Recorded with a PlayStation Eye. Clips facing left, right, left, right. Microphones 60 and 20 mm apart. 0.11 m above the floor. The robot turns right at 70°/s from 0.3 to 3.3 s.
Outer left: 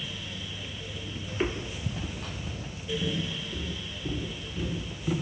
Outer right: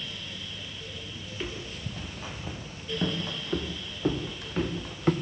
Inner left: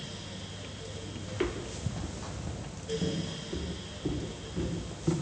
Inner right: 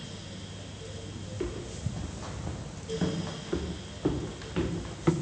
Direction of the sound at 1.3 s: 40° left (ahead or behind).